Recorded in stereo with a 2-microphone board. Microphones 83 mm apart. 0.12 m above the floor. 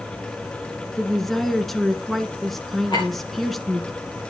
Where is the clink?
60° left (ahead or behind), 7.5 m.